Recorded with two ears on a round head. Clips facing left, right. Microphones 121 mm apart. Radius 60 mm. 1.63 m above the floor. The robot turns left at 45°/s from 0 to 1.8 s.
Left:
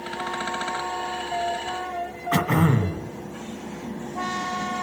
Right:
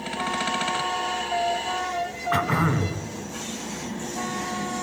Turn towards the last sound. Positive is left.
turn(degrees=35)  # may be behind; listen again after turning